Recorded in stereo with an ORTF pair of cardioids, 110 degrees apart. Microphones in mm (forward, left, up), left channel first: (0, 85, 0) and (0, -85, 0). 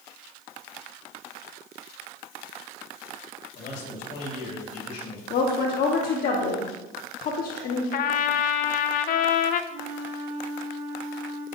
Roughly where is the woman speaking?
Ahead left.